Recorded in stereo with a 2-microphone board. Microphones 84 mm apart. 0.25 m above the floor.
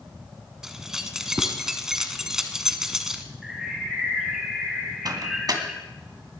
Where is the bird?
5° right (ahead or behind), 2.5 m.